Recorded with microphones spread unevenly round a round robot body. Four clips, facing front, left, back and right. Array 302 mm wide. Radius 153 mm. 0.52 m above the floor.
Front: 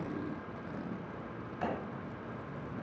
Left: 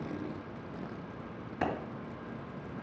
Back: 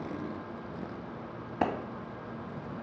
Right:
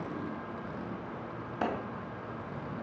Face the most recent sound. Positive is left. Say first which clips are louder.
# even, back 7 dB
turn(degrees=180)